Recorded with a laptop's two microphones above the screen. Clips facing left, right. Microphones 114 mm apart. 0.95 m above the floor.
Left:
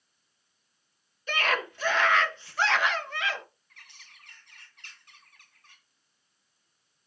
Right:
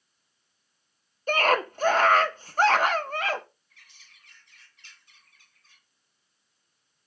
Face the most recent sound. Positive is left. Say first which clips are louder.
# left 4 dB
turn(degrees=75)  # may be behind; listen again after turning